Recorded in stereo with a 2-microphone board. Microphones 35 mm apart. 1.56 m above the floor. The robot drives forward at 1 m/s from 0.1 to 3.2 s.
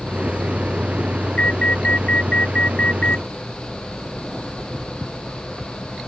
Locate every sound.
1.4 s an alarm: 40° left (ahead or behind)